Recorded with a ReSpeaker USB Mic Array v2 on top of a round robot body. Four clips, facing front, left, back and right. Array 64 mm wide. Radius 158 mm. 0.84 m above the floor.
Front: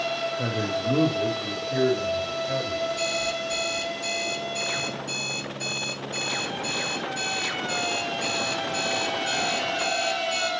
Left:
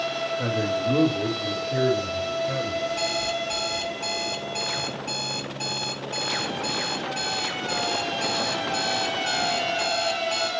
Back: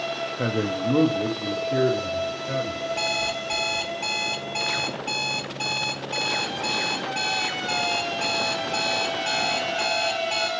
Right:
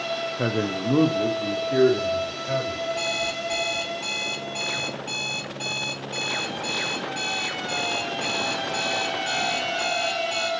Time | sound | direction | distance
0.4 | a man speaking | 115° right | 0.8 m
2.9 | an alarm clock | 175° right | 0.9 m